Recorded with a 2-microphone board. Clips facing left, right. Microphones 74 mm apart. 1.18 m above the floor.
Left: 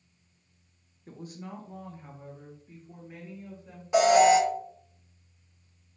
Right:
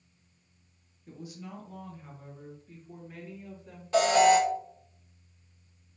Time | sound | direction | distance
1.1 | a woman speaking | 45° left (ahead or behind) | 0.9 m
3.9 | an alarm | 15° left (ahead or behind) | 0.9 m